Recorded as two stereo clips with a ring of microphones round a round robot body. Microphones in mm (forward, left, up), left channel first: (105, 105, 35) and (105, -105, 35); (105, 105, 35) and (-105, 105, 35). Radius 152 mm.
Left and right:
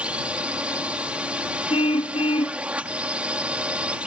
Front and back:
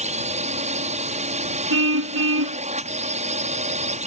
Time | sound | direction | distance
0.0 | a drone | 170° right | ?
1.7 | a car horn | 165° left | ?